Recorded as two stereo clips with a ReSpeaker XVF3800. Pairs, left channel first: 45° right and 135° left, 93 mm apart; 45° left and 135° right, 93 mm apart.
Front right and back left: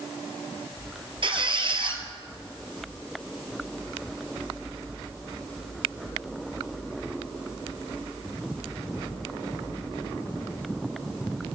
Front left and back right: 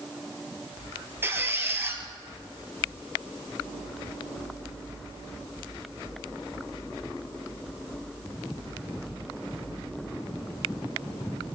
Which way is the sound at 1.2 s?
160° left.